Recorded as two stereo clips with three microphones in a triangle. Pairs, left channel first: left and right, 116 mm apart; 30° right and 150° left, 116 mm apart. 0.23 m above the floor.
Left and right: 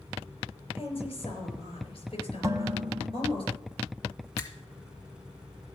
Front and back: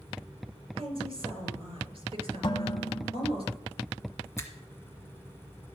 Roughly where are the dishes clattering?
Ahead right.